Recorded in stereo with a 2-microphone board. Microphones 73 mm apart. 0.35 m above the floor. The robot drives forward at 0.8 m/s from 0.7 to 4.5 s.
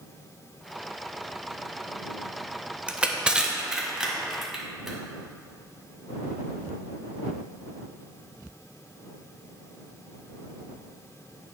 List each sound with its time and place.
2.9 s crushing: 15° right (ahead or behind), 0.6 m; by 5.0 s 5° right (ahead or behind), 1.5 m